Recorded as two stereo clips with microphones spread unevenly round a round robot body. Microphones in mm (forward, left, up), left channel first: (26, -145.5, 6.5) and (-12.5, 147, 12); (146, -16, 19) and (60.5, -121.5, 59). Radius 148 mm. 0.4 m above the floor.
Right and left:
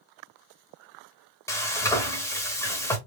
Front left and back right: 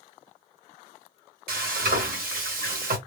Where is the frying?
160° right, 0.9 m.